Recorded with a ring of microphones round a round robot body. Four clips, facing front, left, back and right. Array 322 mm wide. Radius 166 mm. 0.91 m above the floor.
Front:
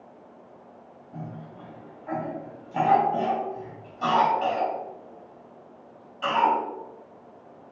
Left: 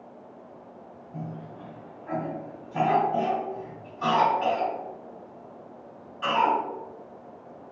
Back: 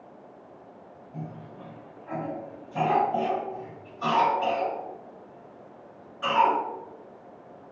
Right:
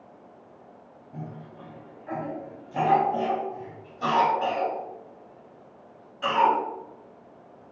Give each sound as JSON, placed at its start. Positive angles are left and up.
{"t": 1.1, "sound": "a cough", "azimuth_deg": -40, "distance_m": 1.8}